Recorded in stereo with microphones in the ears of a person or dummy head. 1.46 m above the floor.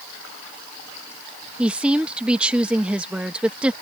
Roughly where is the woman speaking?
Centre.